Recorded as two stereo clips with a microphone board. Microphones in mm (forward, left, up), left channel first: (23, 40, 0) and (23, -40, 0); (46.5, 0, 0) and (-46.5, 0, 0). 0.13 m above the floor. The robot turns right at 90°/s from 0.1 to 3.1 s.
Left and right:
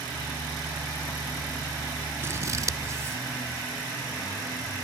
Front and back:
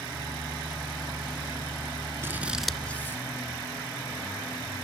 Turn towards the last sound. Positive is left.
turn(degrees=-50)